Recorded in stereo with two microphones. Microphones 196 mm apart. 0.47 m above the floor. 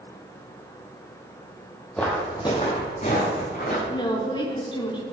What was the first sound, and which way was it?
Footsteps, 5° left (ahead or behind).